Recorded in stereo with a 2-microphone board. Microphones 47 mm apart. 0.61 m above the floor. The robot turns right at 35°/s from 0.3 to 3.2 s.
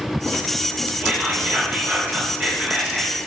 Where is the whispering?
105° right, 1.1 m; by 3.2 s 30° right, 1.1 m.